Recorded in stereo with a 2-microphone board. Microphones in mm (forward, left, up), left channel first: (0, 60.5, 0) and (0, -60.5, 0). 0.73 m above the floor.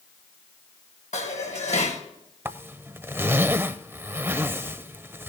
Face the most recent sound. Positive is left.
turn(degrees=-20)  # may be behind; listen again after turning